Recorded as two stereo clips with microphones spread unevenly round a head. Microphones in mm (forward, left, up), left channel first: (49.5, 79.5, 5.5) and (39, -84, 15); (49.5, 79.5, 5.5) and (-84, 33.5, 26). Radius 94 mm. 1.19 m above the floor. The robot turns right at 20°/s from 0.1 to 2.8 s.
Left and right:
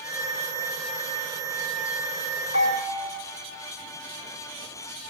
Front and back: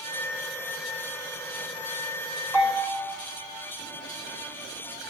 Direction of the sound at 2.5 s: 120° left.